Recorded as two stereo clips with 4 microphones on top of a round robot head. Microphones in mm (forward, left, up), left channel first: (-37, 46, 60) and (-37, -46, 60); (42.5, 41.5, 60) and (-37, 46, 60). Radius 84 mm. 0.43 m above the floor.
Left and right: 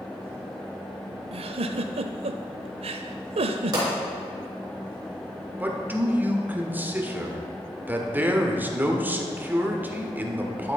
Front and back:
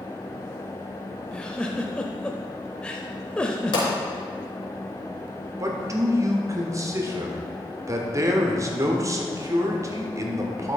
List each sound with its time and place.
1.3 s a giggle: 85° right, 0.6 m
3.7 s a pop: 35° right, 3.5 m
5.6 s a man speaking: 155° right, 1.4 m